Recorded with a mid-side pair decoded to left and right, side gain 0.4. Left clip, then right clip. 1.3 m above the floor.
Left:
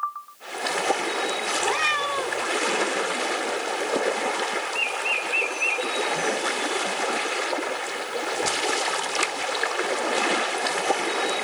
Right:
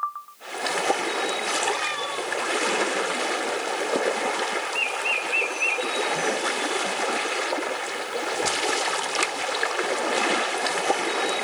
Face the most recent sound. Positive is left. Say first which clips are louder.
# left 3 dB
turn(degrees=55)